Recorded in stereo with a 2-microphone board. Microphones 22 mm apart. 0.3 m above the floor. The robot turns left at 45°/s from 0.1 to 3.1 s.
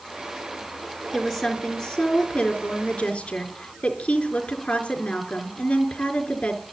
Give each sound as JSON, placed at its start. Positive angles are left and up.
{"t": 1.1, "sound": "a woman speaking", "azimuth_deg": 165, "distance_m": 4.5}